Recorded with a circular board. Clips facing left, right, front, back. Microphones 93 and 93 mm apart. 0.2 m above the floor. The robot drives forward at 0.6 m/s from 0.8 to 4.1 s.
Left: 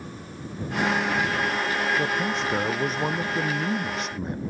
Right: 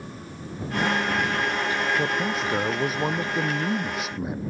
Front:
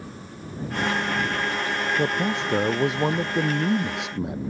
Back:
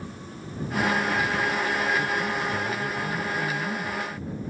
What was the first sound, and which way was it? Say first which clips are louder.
A man speaking: even, front 3 dB; 5° right.